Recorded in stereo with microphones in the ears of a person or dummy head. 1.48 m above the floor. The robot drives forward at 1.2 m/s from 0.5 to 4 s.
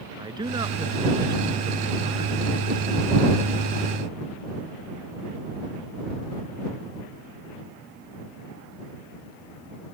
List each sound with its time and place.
0.2 s a man speaking: 20° right (ahead or behind)